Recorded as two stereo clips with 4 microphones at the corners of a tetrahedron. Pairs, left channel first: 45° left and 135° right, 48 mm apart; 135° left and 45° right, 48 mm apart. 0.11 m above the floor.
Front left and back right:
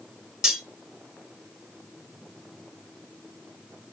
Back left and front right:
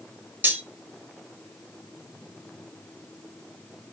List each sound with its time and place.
0.4 s cutlery clinking: 60° right, 1.0 m